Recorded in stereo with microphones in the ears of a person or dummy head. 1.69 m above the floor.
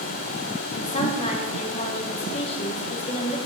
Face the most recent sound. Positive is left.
turn(degrees=35)  # may be behind; listen again after turning